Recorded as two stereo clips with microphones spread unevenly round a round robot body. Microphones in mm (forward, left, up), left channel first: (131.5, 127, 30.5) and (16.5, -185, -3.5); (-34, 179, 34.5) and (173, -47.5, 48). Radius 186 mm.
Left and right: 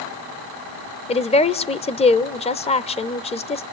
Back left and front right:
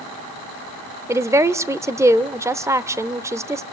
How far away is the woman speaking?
About 0.8 m.